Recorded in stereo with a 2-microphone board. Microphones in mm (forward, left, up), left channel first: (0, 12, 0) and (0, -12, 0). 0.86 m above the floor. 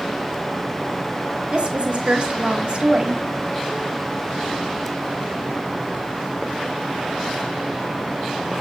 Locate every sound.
1.5 s a woman speaking: 45° right (ahead or behind), 0.7 m